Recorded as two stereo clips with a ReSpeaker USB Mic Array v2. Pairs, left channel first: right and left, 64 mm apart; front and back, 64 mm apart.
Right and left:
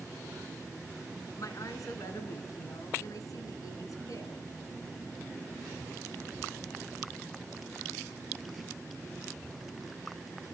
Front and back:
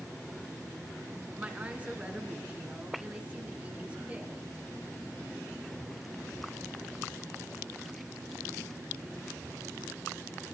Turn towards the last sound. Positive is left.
turn(degrees=-110)